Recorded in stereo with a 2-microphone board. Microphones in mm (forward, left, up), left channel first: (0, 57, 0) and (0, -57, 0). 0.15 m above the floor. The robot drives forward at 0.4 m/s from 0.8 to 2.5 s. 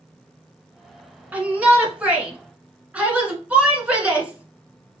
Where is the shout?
15° right (ahead or behind), 1.4 m; by 5.0 s 10° right (ahead or behind), 1.7 m.